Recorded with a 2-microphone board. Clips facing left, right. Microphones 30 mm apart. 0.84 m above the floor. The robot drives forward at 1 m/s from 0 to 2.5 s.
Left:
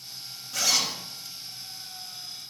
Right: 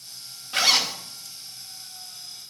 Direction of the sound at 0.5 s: 50° right (ahead or behind).